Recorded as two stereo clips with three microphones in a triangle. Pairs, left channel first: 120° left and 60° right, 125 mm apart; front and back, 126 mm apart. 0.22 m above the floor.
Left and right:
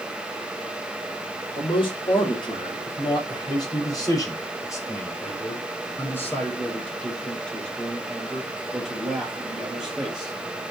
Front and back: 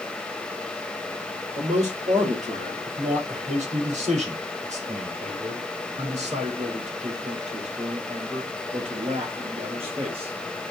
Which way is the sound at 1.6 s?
165° left.